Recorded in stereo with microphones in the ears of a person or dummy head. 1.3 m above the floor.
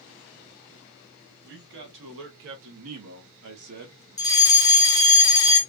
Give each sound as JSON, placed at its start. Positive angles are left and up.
{"t": 1.4, "sound": "a man speaking", "side_deg": -65, "distance_m": 1.6}
{"t": 4.2, "sound": "a fire alarm", "side_deg": 20, "distance_m": 0.9}